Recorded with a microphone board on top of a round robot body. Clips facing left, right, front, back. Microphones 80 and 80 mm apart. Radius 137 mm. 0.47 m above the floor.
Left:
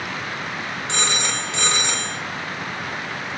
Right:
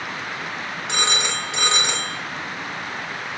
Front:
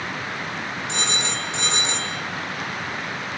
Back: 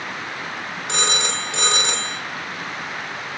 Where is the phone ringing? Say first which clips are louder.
Right 1 dB, back 5 dB; 165° right, 1.8 m.